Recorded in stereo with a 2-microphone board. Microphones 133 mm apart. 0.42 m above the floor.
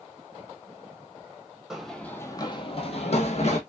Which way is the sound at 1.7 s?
5° right (ahead or behind).